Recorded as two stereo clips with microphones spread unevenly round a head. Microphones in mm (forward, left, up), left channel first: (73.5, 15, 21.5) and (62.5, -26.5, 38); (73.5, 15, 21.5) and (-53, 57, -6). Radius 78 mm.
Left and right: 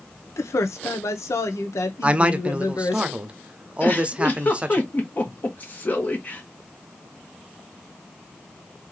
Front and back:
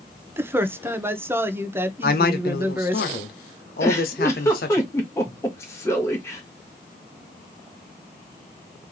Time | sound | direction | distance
0.4 | a man speaking | 85° left | 0.9 m
2.0 | a man speaking | 45° right | 0.8 m
3.8 | a giggle | 25° left | 1.3 m